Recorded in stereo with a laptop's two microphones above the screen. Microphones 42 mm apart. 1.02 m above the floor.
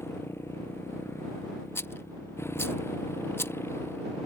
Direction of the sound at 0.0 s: 85° left.